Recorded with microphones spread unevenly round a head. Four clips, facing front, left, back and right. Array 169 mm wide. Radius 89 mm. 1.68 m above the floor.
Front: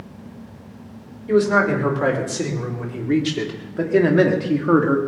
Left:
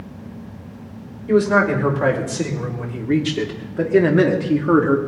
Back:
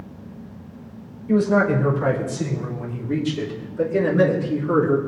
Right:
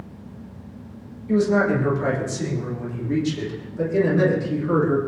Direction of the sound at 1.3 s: 45° left.